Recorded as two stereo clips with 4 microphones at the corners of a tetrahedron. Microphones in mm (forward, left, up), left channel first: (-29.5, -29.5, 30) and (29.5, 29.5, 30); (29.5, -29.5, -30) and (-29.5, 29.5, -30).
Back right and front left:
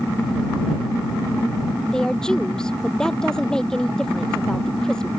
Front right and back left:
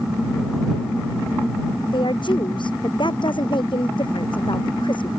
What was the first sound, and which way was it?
A woman speaking, 55° right.